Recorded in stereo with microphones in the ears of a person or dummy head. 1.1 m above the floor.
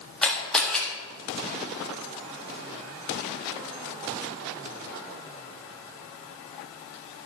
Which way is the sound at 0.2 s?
Centre (ahead or behind).